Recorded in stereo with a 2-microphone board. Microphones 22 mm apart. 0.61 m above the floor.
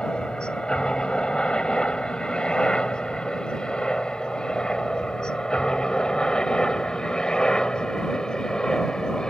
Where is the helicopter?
45° left (ahead or behind); by 9.3 s 35° left (ahead or behind).